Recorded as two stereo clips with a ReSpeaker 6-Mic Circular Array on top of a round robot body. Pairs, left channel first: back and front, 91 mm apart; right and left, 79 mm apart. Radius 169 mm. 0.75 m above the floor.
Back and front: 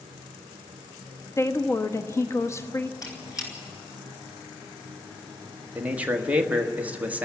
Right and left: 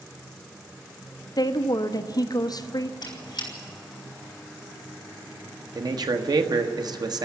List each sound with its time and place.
1.4 s a woman speaking: 120° right, 1.3 m
3.0 s a squeak: 130° right, 5 m
5.8 s a man speaking: 70° left, 1.5 m